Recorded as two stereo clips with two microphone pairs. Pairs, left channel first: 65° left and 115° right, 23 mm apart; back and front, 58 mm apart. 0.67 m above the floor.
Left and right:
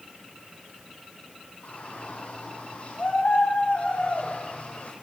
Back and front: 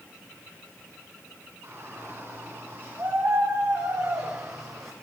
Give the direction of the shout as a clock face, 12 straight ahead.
11 o'clock.